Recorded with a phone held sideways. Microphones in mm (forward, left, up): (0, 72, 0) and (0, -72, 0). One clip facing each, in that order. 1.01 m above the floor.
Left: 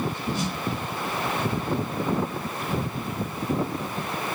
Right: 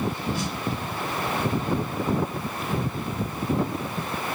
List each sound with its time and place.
0.3 s a snare drum: 25° left (ahead or behind), 1.9 m